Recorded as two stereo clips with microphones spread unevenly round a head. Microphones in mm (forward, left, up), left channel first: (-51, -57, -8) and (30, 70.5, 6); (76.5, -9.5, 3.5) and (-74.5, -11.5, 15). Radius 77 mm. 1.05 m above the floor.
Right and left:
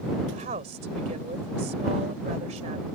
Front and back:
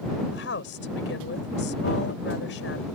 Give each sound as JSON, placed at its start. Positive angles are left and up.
{"t": 0.3, "sound": "a woman speaking", "azimuth_deg": 10}